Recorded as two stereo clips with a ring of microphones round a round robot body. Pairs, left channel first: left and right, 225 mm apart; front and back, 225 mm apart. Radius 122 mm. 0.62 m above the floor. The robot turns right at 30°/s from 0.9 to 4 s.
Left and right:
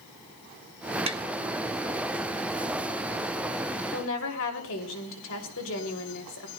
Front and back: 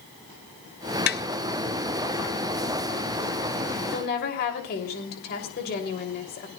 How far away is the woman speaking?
About 3 m.